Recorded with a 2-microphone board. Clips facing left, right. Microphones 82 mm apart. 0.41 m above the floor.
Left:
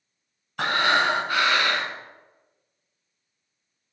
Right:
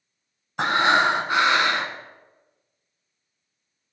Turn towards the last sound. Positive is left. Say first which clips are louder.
# right 3 dB
turn(degrees=-20)  # may be behind; listen again after turning